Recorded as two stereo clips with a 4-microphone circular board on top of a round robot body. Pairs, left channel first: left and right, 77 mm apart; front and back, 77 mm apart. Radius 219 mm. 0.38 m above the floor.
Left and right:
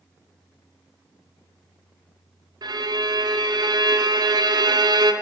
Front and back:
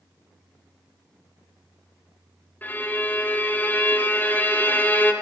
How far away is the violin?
About 1.3 m.